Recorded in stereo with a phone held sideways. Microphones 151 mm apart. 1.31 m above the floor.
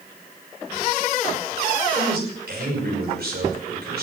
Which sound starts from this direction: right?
A man speaking, at 1.9 s.